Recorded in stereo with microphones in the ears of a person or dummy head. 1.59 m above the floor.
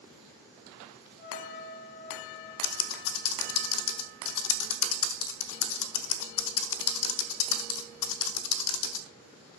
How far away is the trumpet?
About 5 m.